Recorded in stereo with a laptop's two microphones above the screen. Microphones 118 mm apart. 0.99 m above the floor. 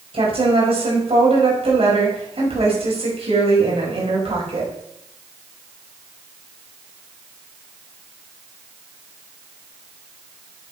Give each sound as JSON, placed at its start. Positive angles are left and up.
{"t": 0.1, "sound": "a woman speaking", "side_deg": -55, "distance_m": 5.5}